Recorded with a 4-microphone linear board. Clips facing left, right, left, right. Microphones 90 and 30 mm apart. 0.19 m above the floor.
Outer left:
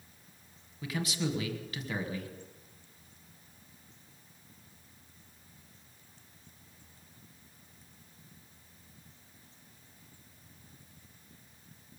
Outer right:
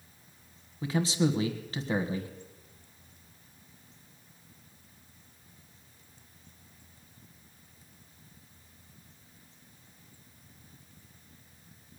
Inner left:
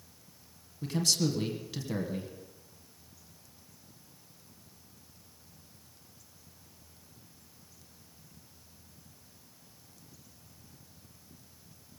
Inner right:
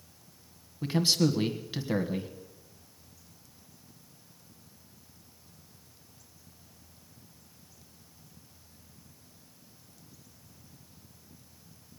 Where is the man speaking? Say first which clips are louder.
Outer right 7 dB, inner right 4 dB; 30° right (ahead or behind), 1.5 m.